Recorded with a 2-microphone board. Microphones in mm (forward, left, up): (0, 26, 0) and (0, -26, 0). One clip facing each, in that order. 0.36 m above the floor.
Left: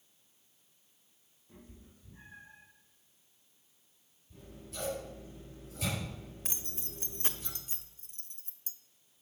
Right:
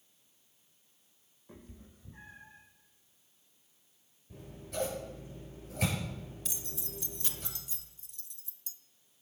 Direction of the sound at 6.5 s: 40° left (ahead or behind).